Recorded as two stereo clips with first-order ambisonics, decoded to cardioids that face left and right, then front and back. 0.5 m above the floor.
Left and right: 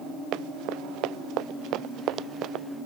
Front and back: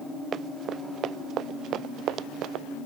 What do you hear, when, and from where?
0.3 s running footsteps: 125° right; by 2.6 s 140° right